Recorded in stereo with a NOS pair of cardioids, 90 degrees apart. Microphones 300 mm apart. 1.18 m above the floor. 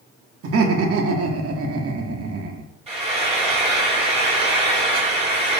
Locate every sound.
0.4 s laughter: 50° right, 1.0 m
2.9 s frying: 20° right, 2 m